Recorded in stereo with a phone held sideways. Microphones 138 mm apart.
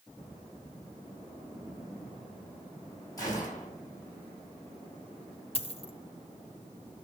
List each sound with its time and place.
3.2 s a gunshot: 30° left (ahead or behind), 5.5 m
5.5 s a dropped coin: 45° left (ahead or behind), 1.0 m